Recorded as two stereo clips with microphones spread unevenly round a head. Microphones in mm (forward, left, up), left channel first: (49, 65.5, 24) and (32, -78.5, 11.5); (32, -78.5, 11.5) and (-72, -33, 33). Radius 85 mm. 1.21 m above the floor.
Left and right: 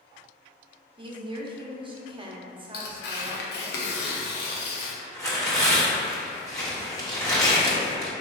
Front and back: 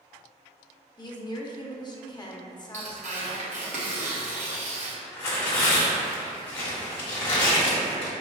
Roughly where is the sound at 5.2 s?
Ahead.